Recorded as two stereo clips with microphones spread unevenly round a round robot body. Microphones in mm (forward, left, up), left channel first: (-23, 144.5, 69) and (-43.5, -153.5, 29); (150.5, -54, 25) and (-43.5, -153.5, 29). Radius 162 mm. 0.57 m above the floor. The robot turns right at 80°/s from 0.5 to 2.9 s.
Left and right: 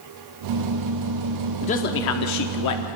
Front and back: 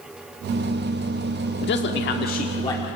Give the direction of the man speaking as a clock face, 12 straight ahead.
12 o'clock.